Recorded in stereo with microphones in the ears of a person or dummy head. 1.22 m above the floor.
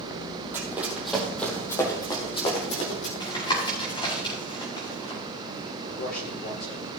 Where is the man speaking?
45° left (ahead or behind), 4.5 m.